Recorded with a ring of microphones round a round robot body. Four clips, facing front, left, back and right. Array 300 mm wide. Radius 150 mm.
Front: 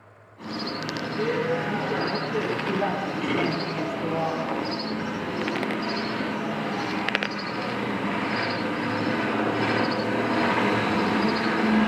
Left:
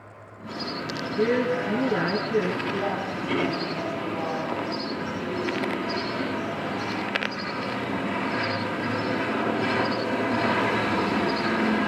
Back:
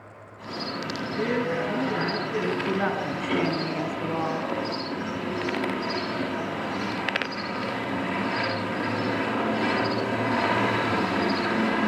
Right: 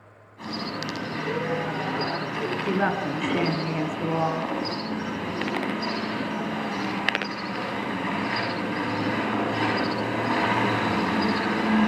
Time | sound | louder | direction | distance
1.2 | a woman speaking | left 6 dB, front 1 dB | 105° left | 8.5 m
2.6 | a woman speaking | right 3 dB, even | 110° right | 5.5 m